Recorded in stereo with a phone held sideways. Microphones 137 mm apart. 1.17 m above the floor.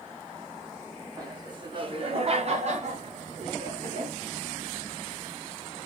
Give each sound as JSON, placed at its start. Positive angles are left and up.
{"t": 1.2, "sound": "laughter", "side_deg": -30, "distance_m": 1.3}